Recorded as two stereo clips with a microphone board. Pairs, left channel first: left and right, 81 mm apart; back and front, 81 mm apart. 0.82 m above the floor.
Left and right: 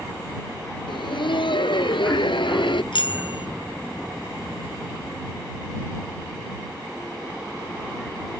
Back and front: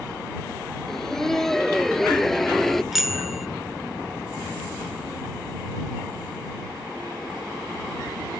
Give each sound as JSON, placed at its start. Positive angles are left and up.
{"t": 0.9, "sound": "laughter", "azimuth_deg": 95}
{"t": 2.9, "sound": "a bicycle bell", "azimuth_deg": 85}